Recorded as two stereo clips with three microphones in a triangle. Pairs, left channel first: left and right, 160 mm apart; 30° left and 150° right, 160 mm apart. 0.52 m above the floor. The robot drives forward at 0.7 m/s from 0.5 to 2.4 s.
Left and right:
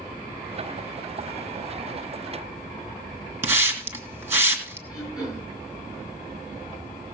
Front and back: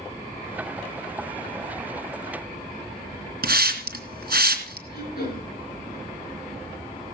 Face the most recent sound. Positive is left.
turn(degrees=25)